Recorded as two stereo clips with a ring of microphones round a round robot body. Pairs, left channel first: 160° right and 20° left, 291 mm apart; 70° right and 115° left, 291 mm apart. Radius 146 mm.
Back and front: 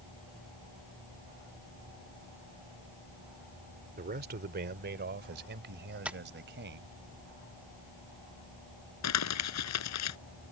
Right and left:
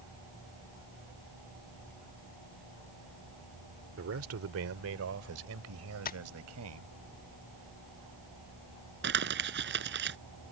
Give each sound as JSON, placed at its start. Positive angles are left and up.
{"t": 4.0, "sound": "a man speaking", "azimuth_deg": 75}
{"t": 6.0, "sound": "tapping", "azimuth_deg": -60}
{"t": 9.0, "sound": "crumpling", "azimuth_deg": 165}